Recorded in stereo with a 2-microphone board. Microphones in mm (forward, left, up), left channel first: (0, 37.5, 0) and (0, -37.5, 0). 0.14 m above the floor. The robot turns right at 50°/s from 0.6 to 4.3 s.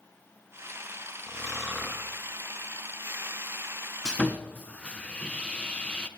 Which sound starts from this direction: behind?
Snoring, at 1.3 s.